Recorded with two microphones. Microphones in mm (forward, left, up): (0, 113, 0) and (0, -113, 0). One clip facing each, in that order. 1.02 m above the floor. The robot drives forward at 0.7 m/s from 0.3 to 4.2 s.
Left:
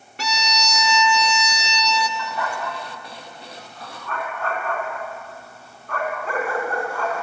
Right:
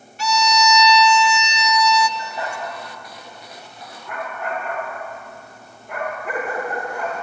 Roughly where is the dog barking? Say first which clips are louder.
Left 1 dB; right.